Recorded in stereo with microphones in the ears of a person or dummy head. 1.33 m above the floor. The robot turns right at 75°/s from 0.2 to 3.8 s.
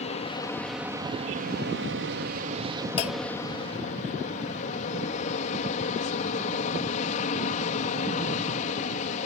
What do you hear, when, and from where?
0.0 s an aircraft: 140° left; by 9.3 s 50° left
3.0 s a clunk: 30° left (ahead or behind); by 3.3 s 55° left (ahead or behind)